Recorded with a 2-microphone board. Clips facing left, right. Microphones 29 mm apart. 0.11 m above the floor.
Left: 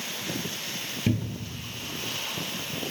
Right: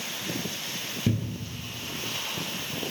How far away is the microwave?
I don't hear a microwave.